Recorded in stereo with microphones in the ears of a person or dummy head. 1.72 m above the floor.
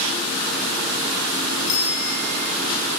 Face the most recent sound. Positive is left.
turn(degrees=80)